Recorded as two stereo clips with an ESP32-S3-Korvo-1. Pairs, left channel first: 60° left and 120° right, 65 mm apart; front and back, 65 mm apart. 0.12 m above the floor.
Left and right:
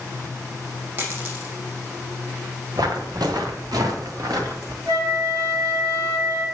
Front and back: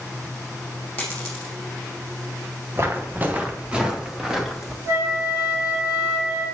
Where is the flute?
135° right, 4 m.